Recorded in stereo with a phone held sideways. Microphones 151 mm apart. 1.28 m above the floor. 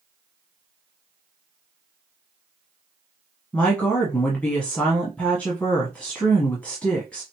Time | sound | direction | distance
3.5 | a woman speaking | 10° left (ahead or behind) | 1.0 m